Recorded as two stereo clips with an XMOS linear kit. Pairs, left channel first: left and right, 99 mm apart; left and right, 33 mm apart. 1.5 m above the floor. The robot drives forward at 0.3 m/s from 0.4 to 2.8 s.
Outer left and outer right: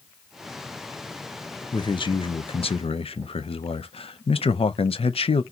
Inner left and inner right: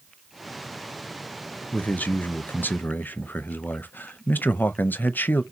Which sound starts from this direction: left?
A man speaking, at 1.7 s.